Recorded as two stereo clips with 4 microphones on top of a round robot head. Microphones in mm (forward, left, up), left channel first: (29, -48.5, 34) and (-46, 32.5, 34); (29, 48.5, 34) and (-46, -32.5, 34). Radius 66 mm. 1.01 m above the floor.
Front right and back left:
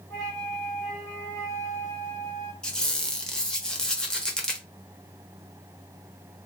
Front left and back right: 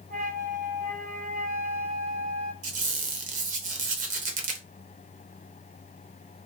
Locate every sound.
0.1 s a flute: 105° right, 1.5 m
2.6 s a squeak: 130° right, 0.9 m